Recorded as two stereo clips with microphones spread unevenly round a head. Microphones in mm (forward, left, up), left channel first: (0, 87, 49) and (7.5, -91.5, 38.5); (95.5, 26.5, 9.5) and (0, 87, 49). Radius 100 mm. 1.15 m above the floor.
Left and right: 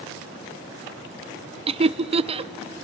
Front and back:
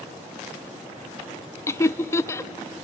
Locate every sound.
1.7 s laughter: 50° right, 0.6 m